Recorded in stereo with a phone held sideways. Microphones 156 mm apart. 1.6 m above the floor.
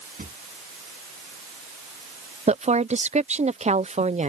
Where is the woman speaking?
45° right (ahead or behind).